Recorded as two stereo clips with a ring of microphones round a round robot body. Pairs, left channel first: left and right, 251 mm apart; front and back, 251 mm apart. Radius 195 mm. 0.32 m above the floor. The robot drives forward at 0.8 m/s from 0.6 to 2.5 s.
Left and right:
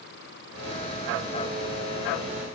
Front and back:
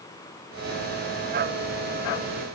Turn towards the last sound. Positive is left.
No sound to turn to.